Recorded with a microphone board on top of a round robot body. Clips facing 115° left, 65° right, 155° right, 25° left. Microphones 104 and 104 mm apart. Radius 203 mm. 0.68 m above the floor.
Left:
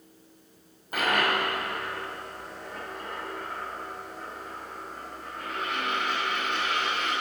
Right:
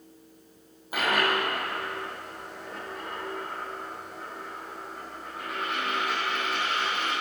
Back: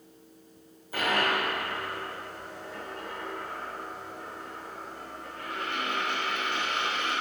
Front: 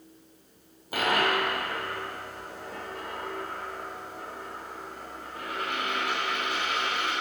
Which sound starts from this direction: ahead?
A dropped coin, at 0.9 s.